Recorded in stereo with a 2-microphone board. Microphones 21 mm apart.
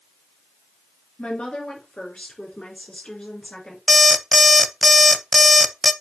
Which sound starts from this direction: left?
A woman speaking, at 1.2 s.